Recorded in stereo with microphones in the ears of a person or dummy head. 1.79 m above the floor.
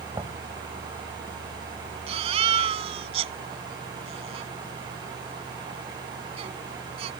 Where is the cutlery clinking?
No cutlery clinking in this recording.